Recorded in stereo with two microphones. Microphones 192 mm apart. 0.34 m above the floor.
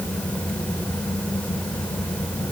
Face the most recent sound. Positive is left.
No sound to turn to.